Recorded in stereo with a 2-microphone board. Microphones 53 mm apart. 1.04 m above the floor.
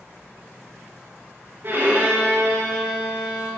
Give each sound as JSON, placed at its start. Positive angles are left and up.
{"t": 1.6, "sound": "a violin", "side_deg": -45, "distance_m": 4.5}